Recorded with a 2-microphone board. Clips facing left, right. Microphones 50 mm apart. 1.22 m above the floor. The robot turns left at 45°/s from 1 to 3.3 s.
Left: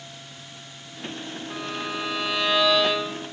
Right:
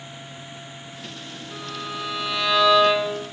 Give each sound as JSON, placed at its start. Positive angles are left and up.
{"t": 1.5, "sound": "a violin", "azimuth_deg": 55, "distance_m": 2.0}